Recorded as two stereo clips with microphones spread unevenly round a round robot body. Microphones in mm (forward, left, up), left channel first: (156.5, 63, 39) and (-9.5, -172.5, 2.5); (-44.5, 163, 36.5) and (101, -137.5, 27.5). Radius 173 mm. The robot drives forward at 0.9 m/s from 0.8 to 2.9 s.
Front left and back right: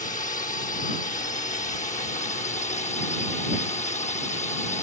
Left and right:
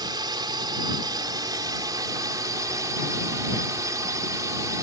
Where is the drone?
5° left.